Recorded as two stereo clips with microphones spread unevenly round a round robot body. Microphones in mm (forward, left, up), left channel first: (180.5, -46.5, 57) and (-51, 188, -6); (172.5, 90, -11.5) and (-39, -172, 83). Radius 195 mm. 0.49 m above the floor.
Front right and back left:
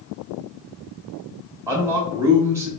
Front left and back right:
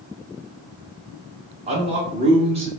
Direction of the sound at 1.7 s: 145° left.